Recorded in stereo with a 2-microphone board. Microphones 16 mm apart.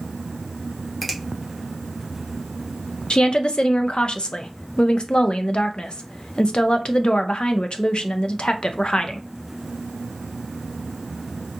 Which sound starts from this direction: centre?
A finger snap, at 1.0 s.